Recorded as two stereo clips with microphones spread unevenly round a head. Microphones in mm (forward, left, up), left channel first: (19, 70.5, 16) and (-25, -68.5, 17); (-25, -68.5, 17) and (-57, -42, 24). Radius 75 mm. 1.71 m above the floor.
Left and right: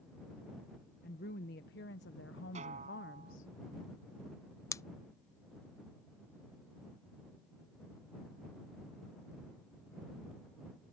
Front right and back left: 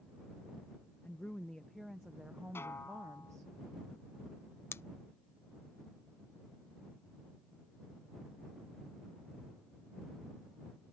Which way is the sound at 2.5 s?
60° right.